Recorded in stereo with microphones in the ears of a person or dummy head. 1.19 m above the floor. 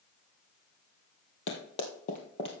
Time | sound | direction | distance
1.5 | running footsteps | 50° left (ahead or behind) | 1.8 m